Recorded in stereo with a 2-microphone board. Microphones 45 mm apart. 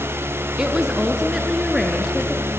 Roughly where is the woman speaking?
Centre.